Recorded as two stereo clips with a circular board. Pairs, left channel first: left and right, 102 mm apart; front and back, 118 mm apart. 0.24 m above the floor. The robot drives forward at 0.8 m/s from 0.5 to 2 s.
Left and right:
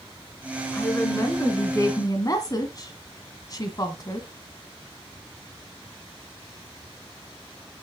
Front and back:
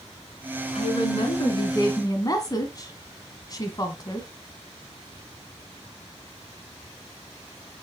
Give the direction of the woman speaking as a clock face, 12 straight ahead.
11 o'clock.